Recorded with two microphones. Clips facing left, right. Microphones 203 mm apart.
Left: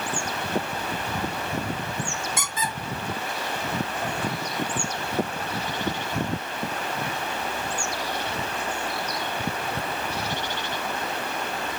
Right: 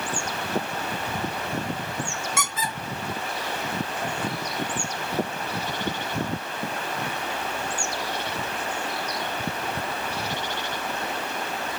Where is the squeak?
75° right (ahead or behind), 1.3 m.